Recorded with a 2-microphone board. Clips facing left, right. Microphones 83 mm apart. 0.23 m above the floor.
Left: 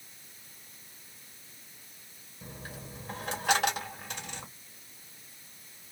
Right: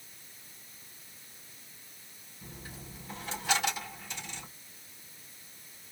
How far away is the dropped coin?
About 2.5 m.